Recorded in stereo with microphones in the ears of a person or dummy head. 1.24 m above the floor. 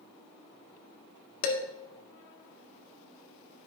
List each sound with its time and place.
1.4 s dishes clattering: 80° left, 1.9 m